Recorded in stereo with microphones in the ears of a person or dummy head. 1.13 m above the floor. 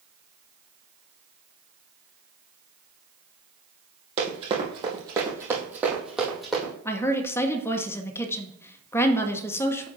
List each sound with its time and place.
4.2 s running footsteps: 40° right (ahead or behind), 2.5 m; by 6.7 s centre (ahead or behind), 3 m
6.8 s a woman speaking: 10° left (ahead or behind), 0.7 m